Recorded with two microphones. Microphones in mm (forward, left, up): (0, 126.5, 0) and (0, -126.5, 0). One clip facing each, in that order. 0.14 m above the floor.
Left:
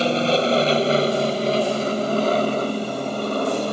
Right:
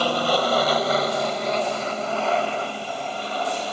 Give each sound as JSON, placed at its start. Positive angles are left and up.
{"t": 0.0, "sound": "an aircraft", "side_deg": 25}